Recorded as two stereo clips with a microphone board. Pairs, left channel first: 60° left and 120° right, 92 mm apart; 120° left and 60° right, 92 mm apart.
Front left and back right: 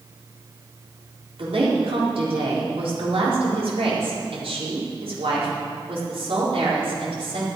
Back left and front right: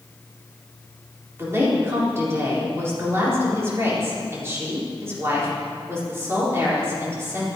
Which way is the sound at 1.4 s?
120° right.